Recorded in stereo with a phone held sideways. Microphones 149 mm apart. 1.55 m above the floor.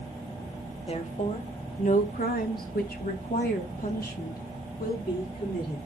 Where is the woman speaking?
40° left (ahead or behind), 2 m; by 5.9 s 70° left (ahead or behind), 4.5 m.